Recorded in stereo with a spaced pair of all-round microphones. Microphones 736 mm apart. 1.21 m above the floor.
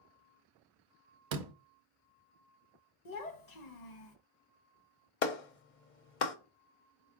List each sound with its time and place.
1.3 s a door slam: 75° right (ahead or behind), 0.7 m
3.0 s a child speaking: 65° left (ahead or behind), 0.8 m
5.2 s a clap: 80° left, 0.7 m